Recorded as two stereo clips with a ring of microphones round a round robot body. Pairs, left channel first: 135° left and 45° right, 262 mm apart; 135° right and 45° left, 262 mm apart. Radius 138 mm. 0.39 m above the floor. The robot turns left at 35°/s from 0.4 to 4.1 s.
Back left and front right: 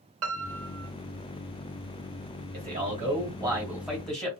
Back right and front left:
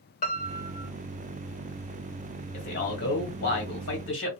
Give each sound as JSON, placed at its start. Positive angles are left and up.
{"t": 0.2, "sound": "a piano", "azimuth_deg": -75, "distance_m": 0.8}
{"t": 2.5, "sound": "a man speaking", "azimuth_deg": -85, "distance_m": 1.7}